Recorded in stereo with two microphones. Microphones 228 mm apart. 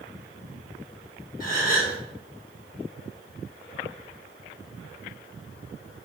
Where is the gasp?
35° left (ahead or behind), 1.1 m.